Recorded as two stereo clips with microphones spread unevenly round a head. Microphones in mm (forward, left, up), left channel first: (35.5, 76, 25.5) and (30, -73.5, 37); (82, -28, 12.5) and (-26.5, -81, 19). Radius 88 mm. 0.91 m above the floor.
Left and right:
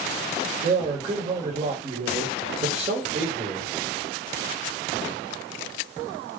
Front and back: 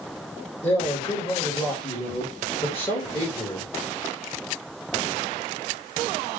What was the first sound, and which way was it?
A man speaking, 45° right.